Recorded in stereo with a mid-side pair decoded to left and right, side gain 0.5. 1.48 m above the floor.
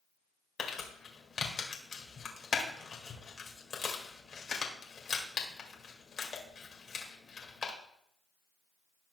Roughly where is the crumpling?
Ahead left.